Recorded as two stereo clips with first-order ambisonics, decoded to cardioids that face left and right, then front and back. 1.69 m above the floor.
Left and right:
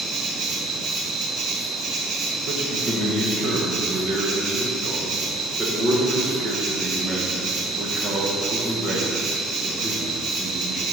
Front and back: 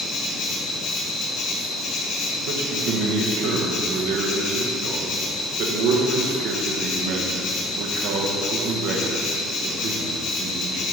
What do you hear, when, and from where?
0.0 s an insect: 45° right, 1.4 m
2.5 s a man speaking: 155° right, 1.5 m